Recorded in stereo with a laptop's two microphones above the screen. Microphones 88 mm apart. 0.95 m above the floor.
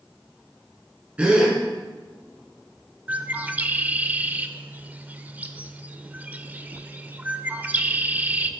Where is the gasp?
15° right (ahead or behind), 2.5 m.